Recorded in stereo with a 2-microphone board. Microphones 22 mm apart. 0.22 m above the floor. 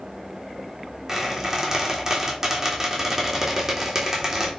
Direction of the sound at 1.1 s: 20° right (ahead or behind).